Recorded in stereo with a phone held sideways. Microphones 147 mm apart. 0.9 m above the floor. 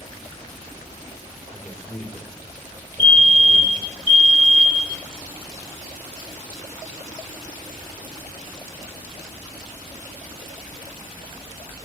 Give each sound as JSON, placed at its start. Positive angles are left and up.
{"t": 1.5, "sound": "a man speaking", "side_deg": 10, "distance_m": 3.5}
{"t": 3.0, "sound": "a fire alarm", "side_deg": 40, "distance_m": 3.5}